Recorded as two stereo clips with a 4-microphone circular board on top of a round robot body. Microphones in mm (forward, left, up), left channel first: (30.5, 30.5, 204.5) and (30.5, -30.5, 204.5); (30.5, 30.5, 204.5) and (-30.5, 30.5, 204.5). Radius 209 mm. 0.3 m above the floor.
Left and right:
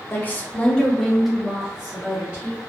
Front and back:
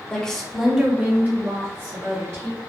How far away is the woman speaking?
About 1.0 m.